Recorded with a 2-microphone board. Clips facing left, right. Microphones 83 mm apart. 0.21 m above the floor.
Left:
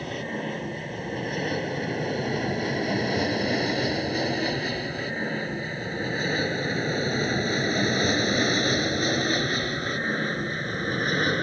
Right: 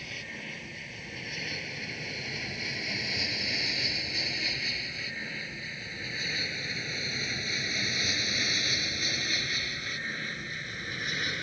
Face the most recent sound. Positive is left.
turn(degrees=55)  # may be behind; listen again after turning